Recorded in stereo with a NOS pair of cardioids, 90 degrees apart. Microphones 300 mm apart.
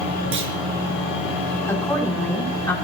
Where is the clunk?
45° right, 5 m.